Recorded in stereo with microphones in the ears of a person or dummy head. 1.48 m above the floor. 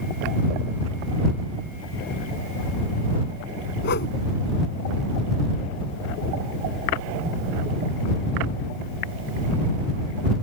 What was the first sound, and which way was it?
A whoosh, 55° left (ahead or behind).